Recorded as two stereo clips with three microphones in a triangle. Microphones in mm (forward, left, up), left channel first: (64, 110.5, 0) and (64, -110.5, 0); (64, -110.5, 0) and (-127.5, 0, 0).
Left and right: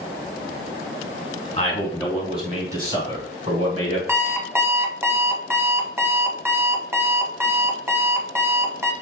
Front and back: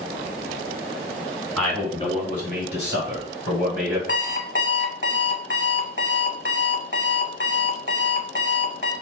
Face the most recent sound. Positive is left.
turn(degrees=-10)